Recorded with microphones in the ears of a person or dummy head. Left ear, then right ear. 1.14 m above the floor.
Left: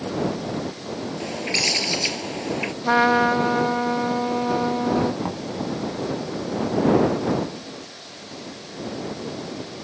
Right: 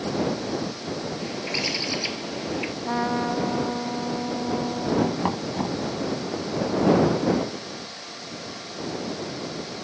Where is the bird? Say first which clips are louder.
Left 6 dB; 40° left (ahead or behind).